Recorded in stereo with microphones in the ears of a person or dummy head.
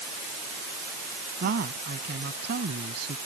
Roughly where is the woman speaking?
Right.